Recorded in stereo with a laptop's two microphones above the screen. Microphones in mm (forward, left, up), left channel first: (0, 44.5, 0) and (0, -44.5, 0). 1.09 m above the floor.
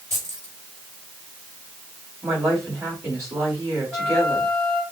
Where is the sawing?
I don't hear sawing.